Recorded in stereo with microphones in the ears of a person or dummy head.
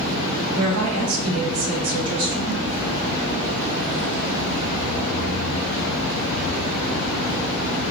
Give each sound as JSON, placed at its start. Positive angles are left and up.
{"t": 0.5, "sound": "a woman speaking", "side_deg": -70, "distance_m": 1.1}